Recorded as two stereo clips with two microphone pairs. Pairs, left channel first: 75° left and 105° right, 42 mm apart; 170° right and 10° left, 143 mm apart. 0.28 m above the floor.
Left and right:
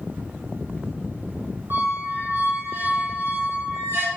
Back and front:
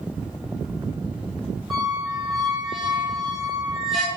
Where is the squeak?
80° right, 2 m.